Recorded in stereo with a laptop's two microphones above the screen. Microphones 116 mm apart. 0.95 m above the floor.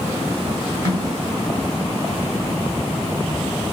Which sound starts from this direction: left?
A snare drum, at 0.8 s.